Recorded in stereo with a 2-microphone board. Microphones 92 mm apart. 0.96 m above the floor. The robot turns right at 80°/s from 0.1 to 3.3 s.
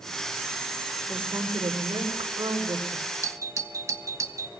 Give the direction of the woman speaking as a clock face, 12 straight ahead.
6 o'clock.